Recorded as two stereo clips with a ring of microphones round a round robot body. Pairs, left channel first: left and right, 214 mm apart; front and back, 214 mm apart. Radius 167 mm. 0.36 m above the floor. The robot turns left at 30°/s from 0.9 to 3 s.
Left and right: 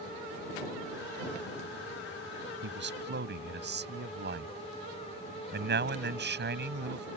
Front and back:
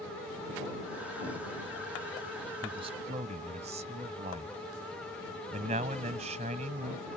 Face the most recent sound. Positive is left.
turn(degrees=-120)